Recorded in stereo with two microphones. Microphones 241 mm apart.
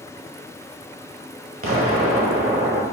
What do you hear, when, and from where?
1.6 s an explosion: 70° right (ahead or behind), 0.9 m